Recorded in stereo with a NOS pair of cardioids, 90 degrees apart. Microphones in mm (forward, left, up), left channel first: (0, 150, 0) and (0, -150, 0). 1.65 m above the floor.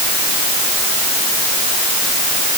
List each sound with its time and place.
Only background noise.